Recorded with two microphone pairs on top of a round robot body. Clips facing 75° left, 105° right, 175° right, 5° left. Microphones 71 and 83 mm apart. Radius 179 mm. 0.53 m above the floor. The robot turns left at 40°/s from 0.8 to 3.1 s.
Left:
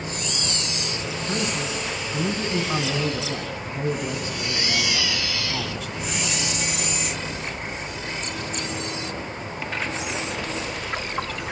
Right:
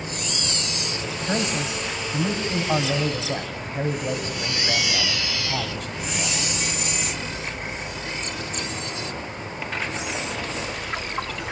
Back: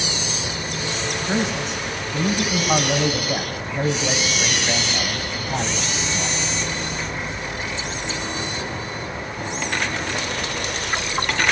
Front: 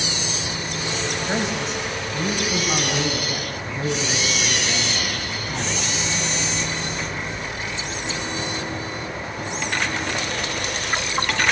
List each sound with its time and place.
1.3 s a man speaking: 65° right, 4.5 m; by 6.4 s 140° right, 4.5 m